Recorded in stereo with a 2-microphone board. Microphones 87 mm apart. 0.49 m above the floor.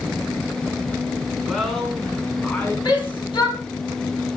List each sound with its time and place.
1.4 s a woman speaking: 5° right (ahead or behind), 5 m; by 2.8 s 15° left (ahead or behind), 4.5 m
2.9 s a shout: 60° left (ahead or behind), 4.5 m